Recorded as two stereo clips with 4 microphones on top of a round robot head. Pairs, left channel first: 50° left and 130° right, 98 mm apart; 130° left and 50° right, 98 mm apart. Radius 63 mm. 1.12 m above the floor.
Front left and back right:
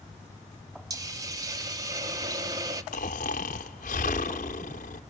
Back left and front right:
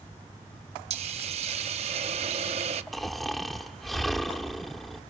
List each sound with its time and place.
0.9 s a hiss: 75° right, 0.9 m
2.9 s snoring: 45° left, 1.0 m